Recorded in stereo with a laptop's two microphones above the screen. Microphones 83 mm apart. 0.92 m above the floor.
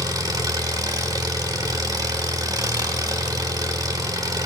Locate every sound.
0.0 s an engine running: 50° right (ahead or behind), 0.9 m